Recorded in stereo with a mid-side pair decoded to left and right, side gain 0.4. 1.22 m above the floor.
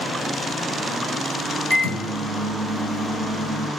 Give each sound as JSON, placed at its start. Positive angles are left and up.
{"t": 1.7, "sound": "a microwave", "azimuth_deg": -50, "distance_m": 0.9}